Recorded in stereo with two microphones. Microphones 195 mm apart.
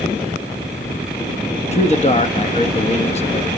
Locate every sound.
1.7 s a man speaking: 35° left (ahead or behind), 0.8 m